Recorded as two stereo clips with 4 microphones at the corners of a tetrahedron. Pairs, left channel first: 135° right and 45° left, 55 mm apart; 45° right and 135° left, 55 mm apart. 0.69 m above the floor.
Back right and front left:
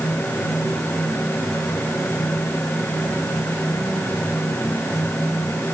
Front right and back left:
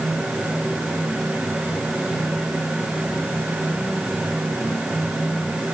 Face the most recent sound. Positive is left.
No sound to turn to.